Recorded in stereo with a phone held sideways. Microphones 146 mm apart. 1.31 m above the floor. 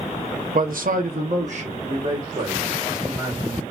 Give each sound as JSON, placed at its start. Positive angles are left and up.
{"t": 0.5, "sound": "a man speaking", "side_deg": -70, "distance_m": 0.8}